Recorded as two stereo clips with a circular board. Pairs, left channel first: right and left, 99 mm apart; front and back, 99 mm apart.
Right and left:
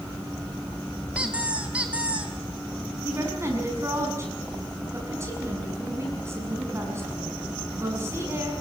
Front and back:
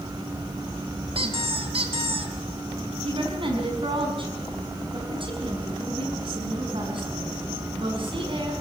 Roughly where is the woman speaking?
Behind left.